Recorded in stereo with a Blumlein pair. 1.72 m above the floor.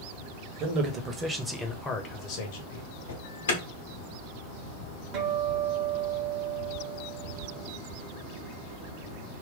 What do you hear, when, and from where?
0.6 s a man speaking: 35° right, 0.9 m; by 2.9 s 55° left, 0.9 m
3.1 s an alarm: 65° left, 0.8 m
5.1 s a guitar: 35° right, 0.8 m